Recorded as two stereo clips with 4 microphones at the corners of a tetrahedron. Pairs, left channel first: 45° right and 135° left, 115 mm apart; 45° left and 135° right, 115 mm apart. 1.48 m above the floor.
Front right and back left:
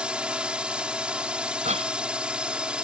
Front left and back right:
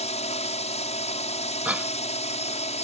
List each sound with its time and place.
0.0 s a drone: 55° left
1.6 s a cough: 150° left